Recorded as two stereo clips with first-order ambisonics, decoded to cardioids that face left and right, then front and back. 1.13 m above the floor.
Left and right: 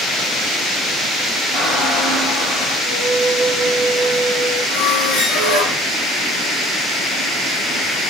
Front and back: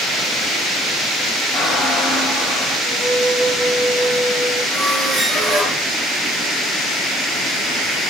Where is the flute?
165° left, 2.5 m.